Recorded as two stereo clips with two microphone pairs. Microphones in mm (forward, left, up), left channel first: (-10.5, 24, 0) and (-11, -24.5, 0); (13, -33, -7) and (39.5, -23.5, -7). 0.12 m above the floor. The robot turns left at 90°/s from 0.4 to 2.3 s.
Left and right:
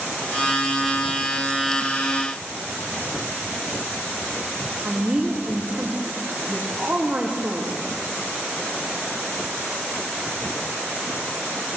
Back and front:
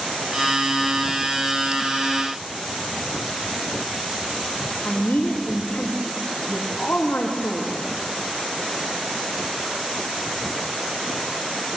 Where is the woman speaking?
150° right, 7 m.